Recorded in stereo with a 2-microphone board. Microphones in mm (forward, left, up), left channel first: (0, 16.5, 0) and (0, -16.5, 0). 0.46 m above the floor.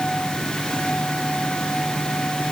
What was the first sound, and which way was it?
Only background noise.